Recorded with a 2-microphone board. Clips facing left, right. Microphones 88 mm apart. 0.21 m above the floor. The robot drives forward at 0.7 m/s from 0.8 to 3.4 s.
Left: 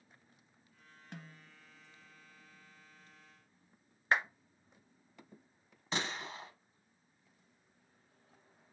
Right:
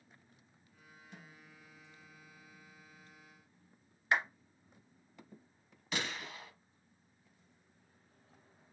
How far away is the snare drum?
About 0.9 m.